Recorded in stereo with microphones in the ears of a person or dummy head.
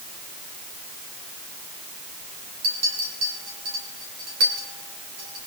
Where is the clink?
50° right (ahead or behind), 2.5 m.